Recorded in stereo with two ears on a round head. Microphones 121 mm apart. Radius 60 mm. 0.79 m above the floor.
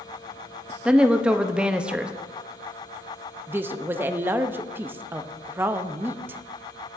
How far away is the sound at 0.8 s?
About 0.6 m.